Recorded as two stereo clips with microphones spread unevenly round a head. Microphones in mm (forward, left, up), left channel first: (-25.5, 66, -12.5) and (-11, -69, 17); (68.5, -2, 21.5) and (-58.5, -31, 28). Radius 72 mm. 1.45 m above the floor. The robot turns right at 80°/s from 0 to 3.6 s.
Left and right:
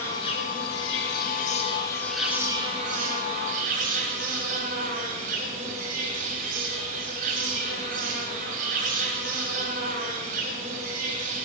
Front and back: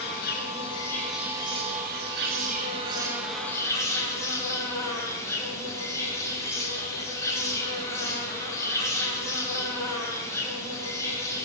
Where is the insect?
15° left, 3.5 m; by 11.5 s 55° right, 3.5 m.